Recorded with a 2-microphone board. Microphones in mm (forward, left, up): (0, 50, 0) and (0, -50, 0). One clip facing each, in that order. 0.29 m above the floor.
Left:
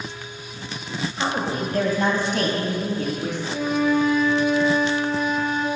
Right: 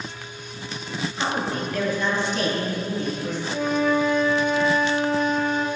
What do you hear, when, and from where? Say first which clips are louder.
1.2 s a woman speaking: left 1 dB; 5° left (ahead or behind), 1.1 m; by 3.4 s 70° left (ahead or behind), 3 m
3.5 s a flute: left 1 dB; centre (ahead or behind), 1.8 m